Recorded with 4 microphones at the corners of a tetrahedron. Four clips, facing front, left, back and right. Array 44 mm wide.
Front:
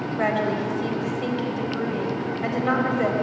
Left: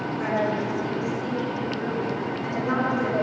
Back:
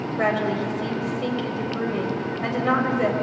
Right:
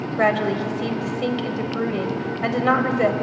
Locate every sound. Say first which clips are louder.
0.2 s a woman speaking: right 6 dB, back 1 dB; 90° right, 4 m